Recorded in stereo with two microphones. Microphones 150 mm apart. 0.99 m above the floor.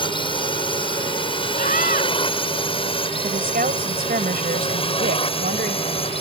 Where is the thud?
No thud in this recording.